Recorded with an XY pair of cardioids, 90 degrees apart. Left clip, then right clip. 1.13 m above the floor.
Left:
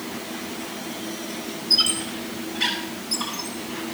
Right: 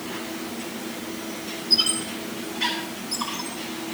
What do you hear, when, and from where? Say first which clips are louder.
1.7 s a squeak: left 1 dB; 45° left, 5.5 m